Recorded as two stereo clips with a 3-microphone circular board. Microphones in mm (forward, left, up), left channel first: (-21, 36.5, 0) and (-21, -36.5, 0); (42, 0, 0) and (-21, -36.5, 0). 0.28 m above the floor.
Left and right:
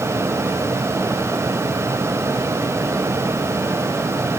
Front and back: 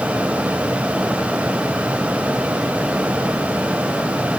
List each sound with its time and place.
Only background noise.